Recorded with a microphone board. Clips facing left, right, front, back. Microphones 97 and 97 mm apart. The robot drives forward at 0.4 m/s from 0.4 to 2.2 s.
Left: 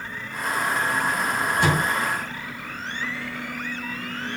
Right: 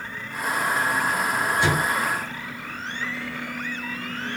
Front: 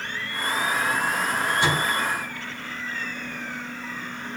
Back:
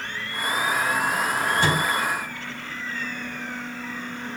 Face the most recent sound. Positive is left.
turn(degrees=135)